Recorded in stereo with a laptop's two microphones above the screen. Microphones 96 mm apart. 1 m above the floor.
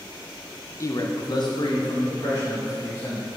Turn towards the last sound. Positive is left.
turn(degrees=40)  # may be behind; listen again after turning